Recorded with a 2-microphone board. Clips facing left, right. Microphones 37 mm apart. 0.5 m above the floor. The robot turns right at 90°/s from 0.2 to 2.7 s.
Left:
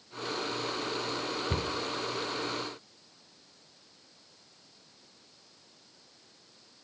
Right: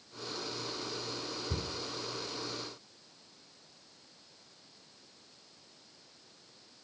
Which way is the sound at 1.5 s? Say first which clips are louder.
Left 6 dB; 50° left (ahead or behind).